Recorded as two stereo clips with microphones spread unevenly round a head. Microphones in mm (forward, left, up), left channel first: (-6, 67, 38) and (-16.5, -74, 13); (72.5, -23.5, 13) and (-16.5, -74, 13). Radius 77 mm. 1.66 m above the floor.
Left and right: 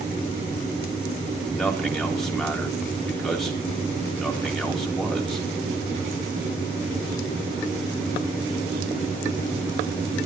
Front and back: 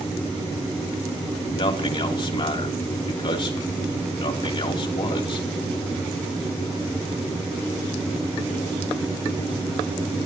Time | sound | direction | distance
1.5 | a man speaking | 5° right | 3 m